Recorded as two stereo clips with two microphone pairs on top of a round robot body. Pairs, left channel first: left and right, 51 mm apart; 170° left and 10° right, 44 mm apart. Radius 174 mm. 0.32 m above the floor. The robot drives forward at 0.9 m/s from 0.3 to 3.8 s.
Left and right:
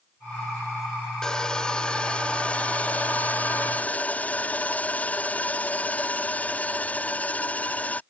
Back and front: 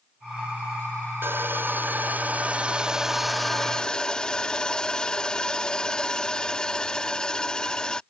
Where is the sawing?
15° left; by 8.0 s 125° left.